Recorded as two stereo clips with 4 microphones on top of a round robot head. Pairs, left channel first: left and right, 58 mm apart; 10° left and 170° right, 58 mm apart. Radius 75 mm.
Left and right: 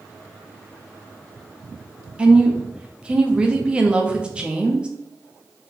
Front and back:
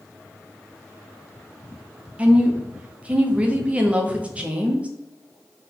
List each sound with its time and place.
2.2 s a woman speaking: 140° right, 1.0 m